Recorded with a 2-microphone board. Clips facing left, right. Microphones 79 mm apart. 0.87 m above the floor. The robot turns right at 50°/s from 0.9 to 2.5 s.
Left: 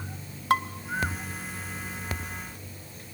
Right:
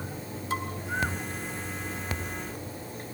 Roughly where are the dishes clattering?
Left.